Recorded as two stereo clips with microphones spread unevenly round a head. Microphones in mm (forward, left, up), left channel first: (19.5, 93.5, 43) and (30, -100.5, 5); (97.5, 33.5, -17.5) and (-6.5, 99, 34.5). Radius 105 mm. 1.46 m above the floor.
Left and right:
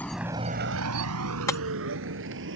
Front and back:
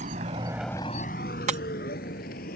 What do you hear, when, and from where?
0.0 s a vehicle: 175° left; by 2.6 s 60° right
1.5 s breaking glass: 165° left